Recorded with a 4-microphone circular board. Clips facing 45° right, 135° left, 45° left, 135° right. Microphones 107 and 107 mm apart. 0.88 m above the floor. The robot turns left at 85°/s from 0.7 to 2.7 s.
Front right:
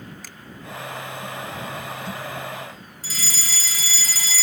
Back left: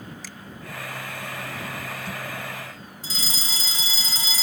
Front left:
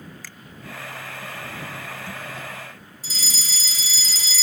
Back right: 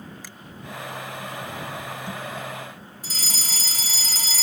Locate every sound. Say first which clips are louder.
0.2 s a finger snap: back left 2 dB, back right 1 dB; 70° right
3.0 s a fire alarm: even, even; 165° right